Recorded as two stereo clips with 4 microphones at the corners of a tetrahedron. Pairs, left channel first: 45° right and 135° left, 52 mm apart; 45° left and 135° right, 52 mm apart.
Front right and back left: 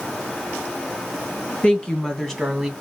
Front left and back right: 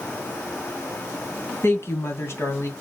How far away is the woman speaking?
About 3 m.